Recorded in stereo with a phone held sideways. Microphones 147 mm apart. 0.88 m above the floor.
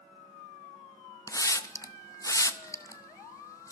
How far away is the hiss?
About 0.7 m.